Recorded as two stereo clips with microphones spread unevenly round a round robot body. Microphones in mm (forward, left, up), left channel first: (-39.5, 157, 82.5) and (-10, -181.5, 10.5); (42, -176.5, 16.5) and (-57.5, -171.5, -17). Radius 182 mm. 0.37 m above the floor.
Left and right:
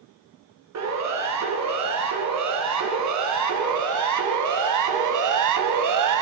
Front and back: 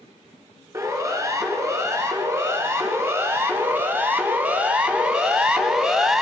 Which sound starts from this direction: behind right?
A siren, at 0.7 s.